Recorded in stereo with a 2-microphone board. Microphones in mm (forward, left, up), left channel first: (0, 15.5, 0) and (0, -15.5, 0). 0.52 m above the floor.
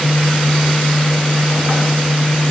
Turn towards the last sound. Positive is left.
No sound to turn to.